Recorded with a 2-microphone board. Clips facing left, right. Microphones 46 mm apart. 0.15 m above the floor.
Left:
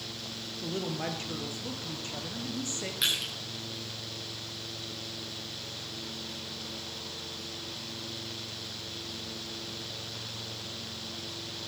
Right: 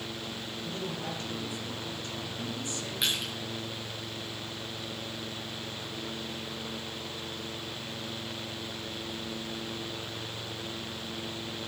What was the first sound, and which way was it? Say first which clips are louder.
A woman speaking: left 4 dB; 35° left (ahead or behind).